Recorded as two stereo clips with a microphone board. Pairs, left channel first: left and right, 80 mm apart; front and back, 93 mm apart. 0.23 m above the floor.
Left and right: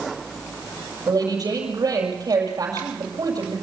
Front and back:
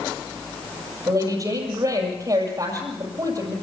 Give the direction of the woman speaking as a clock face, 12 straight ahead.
4 o'clock.